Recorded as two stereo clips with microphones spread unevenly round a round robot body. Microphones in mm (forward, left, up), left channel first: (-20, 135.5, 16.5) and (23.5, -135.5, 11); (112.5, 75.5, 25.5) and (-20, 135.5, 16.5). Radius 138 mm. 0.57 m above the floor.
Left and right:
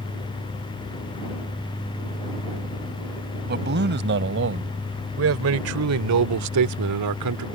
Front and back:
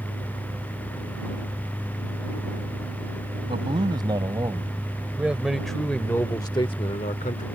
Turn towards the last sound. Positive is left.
turn(degrees=-70)